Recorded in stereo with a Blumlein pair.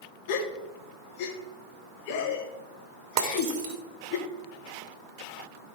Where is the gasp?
45° left, 1.4 m.